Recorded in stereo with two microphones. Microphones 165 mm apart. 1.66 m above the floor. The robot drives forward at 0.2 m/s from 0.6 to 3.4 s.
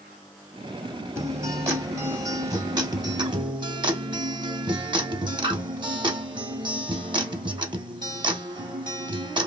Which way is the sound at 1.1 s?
15° right (ahead or behind).